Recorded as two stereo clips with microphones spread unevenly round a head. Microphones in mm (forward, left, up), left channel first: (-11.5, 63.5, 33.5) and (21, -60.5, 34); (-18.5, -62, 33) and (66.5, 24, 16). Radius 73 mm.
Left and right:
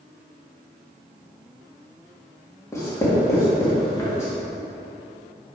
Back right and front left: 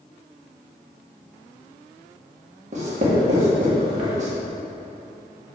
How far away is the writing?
About 2 m.